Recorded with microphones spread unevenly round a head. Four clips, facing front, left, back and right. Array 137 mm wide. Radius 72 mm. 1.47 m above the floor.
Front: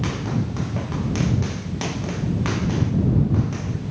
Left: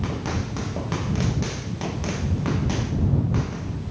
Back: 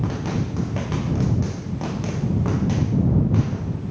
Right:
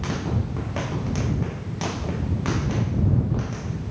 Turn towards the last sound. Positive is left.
No sound to turn to.